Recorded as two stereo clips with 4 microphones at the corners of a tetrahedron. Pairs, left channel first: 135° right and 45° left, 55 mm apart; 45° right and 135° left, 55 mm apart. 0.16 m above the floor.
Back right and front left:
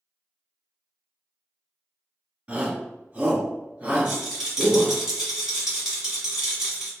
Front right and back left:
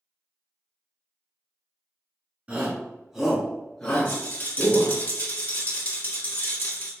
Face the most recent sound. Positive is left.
turn(degrees=-35)